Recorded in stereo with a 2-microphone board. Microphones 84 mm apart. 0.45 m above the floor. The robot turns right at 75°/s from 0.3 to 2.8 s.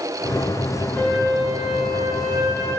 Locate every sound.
0.9 s a flute: 150° left, 7 m; by 2.8 s 75° right, 7 m